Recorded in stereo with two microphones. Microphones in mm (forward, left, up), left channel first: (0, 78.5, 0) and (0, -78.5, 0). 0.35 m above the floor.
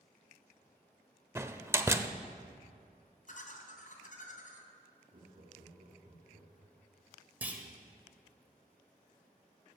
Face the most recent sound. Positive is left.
turn(degrees=-10)  # may be behind; listen again after turning